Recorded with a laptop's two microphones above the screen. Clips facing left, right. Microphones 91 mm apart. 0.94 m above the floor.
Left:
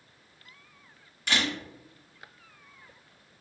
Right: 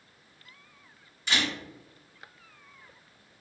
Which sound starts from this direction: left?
A camera shutter, at 1.3 s.